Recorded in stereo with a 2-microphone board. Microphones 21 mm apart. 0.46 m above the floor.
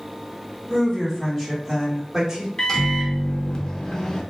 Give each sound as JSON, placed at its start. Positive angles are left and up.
{"t": 0.7, "sound": "a woman speaking", "side_deg": 30, "distance_m": 1.3}
{"t": 2.6, "sound": "a microwave", "side_deg": 30, "distance_m": 0.6}